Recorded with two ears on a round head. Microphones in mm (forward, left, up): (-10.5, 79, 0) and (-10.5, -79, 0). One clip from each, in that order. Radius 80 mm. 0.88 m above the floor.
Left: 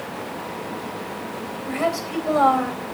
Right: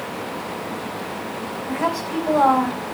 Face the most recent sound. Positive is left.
turn(degrees=70)  # may be behind; listen again after turning